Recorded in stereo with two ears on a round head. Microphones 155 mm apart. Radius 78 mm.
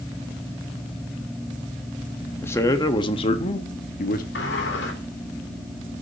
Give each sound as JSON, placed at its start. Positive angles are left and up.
{"t": 2.4, "sound": "a man speaking", "side_deg": 15, "distance_m": 1.4}
{"t": 4.3, "sound": "a sliding door", "side_deg": 70, "distance_m": 3.0}